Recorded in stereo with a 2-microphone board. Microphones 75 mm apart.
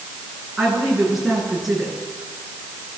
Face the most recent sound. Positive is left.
turn(degrees=-5)  # may be behind; listen again after turning